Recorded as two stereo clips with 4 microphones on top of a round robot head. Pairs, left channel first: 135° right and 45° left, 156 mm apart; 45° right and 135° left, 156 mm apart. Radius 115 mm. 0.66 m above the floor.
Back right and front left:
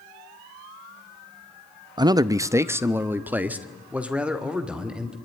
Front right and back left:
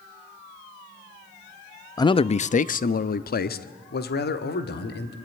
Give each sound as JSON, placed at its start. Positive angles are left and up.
{"t": 2.0, "sound": "a man speaking", "azimuth_deg": 5, "distance_m": 0.6}